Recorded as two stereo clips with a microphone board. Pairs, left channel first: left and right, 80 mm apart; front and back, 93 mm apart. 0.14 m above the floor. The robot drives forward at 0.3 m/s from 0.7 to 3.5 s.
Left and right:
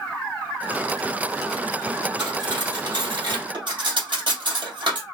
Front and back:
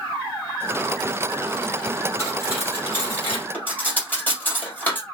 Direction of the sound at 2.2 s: 60° right.